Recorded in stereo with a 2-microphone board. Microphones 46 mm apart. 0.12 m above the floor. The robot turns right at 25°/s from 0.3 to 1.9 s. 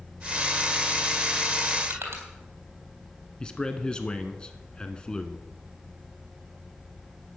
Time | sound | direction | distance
1.9 | crushing | 60° right (ahead or behind) | 3.5 m
3.4 | a man speaking | 20° left (ahead or behind) | 1.0 m